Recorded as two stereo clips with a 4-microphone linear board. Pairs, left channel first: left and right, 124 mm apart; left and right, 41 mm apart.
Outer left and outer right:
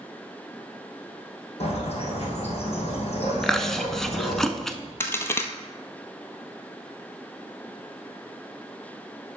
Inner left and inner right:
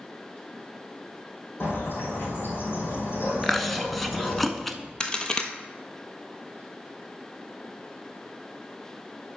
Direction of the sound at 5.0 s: 20° left (ahead or behind).